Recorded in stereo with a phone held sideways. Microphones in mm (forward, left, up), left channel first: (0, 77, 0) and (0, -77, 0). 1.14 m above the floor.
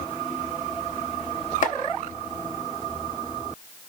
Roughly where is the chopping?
Left.